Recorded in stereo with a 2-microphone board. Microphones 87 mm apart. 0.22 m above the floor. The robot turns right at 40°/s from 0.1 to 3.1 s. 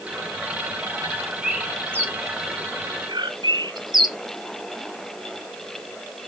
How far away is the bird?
About 2.5 m.